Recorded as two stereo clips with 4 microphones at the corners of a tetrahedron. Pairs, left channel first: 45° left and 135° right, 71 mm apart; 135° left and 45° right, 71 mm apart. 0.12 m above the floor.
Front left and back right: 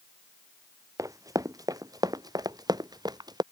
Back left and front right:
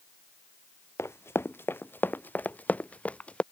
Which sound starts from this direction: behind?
Running footsteps, at 1.0 s.